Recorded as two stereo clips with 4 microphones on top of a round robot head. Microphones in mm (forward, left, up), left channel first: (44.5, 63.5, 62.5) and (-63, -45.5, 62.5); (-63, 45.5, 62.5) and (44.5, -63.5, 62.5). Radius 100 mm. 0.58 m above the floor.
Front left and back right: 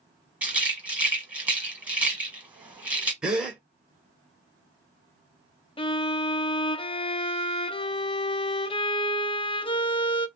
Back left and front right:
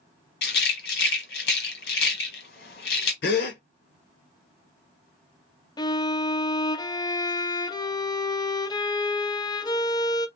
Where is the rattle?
145° left, 1.3 m.